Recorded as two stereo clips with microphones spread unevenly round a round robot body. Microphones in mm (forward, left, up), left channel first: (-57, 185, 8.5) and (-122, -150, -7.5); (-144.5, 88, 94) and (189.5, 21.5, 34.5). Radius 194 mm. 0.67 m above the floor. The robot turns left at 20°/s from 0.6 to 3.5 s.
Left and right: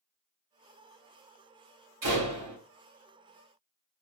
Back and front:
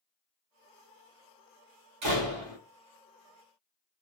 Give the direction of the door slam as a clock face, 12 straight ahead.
1 o'clock.